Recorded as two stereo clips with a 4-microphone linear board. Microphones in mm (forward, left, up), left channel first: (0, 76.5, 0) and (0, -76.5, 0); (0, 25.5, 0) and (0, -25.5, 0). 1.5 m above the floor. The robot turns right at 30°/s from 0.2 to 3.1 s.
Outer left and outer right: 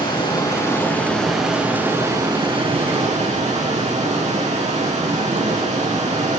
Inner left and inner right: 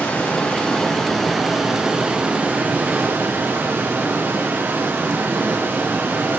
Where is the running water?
145° left, 3.5 m; by 6.4 s 125° right, 3.5 m.